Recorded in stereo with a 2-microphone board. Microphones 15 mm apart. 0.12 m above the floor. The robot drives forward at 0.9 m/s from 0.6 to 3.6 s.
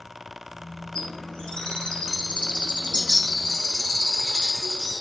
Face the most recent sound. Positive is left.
turn(degrees=55)  # may be behind; listen again after turning